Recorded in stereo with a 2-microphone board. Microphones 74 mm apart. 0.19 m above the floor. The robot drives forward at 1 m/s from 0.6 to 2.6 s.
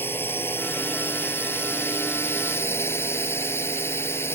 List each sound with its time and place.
0.0 s a drone: 30° left (ahead or behind); by 4.4 s 35° left (ahead or behind)